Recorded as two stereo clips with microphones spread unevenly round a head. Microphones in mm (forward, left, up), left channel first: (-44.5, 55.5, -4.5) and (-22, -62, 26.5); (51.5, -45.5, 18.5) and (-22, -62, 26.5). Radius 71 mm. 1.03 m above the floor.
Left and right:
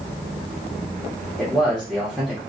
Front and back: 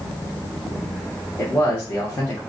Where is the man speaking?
30° left, 1.0 m.